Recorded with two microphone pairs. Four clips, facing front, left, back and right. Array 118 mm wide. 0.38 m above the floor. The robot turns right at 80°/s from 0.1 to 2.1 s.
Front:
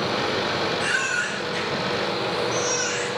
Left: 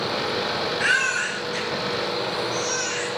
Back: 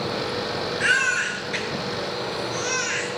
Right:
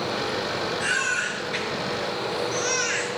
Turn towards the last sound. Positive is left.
turn(degrees=-120)